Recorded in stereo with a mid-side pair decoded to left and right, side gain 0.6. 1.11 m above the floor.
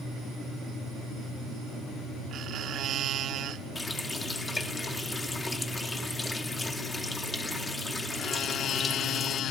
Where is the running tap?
20° left, 1.8 m.